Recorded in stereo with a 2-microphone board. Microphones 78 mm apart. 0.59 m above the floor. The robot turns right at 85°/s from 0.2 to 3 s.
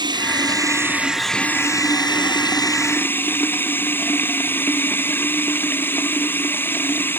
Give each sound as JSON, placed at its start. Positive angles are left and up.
{"t": 0.0, "sound": "running water", "azimuth_deg": -85}